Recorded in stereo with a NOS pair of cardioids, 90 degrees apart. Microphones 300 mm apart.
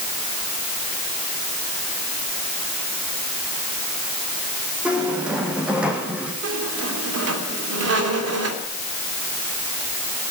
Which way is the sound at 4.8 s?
5° right.